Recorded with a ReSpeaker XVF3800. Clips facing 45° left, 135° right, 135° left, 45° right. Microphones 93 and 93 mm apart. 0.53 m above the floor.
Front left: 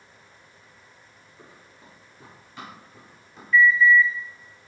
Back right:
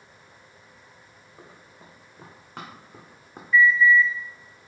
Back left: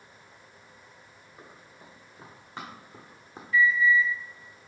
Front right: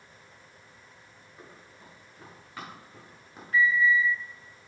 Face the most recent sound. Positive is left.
turn(degrees=-55)